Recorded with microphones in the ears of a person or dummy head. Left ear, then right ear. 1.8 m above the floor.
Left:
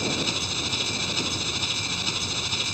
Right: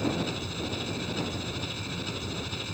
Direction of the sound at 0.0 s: 30° left (ahead or behind).